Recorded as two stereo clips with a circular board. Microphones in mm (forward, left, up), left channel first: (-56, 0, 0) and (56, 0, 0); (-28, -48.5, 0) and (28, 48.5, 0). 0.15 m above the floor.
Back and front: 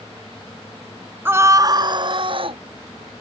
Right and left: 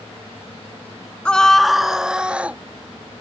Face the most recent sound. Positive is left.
turn(degrees=-15)